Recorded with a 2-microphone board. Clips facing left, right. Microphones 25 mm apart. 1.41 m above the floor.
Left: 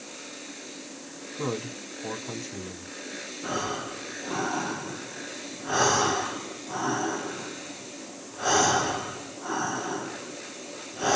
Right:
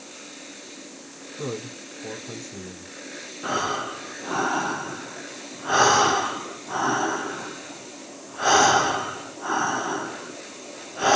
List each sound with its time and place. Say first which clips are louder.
1.4 s a man speaking: left 1 dB; 40° left (ahead or behind), 3 m
3.4 s breathing: right 5 dB; 40° right (ahead or behind), 0.7 m